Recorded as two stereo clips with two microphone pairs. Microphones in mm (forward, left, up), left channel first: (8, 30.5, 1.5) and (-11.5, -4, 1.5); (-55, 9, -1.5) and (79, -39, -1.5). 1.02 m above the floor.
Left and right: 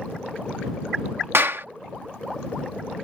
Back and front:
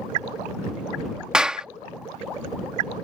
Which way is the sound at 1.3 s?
105° right.